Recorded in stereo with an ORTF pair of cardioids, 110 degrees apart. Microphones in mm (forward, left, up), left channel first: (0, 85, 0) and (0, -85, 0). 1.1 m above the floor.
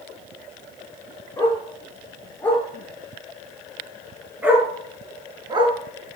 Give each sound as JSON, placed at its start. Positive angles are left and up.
{"t": 1.4, "sound": "a dog barking", "azimuth_deg": 15, "distance_m": 7.0}